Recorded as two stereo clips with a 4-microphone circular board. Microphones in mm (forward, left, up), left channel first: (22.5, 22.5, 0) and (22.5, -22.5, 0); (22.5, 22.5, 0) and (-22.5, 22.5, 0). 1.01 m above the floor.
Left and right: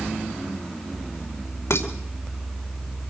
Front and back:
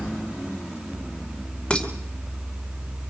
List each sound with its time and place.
1.7 s dishes clattering: 70° left, 2.5 m